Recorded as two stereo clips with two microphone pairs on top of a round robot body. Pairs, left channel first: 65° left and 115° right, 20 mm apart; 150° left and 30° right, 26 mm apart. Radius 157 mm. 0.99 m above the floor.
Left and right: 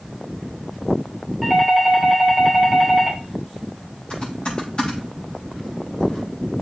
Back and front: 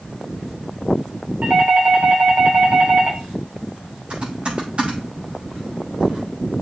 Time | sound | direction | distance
1.4 | a doorbell | 30° right | 4 m
4.1 | typing on a keyboard | 15° left | 5.5 m